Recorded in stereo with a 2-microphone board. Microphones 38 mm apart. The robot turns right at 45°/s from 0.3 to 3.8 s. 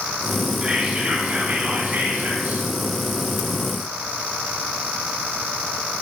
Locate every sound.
0.6 s whispering: 155° right, 2.0 m; by 2.7 s 60° right, 2.0 m